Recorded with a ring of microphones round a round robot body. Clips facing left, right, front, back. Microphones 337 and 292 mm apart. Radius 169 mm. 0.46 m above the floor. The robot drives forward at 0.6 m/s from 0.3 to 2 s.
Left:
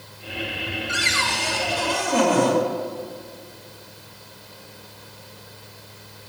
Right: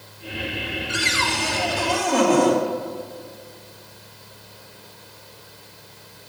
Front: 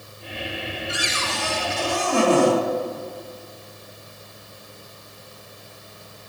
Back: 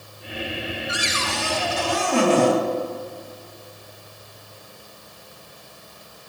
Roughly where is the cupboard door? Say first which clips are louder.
Right 3 dB, back 1 dB; behind.